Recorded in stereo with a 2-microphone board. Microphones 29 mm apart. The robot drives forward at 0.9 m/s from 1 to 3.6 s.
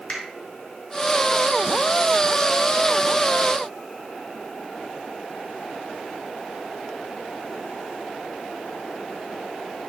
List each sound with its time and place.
0.1 s a finger snap: 45° left (ahead or behind), 3 m